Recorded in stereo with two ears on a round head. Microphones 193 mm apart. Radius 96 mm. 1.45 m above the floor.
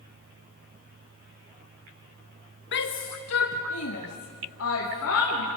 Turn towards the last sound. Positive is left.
turn(degrees=65)  # may be behind; listen again after turning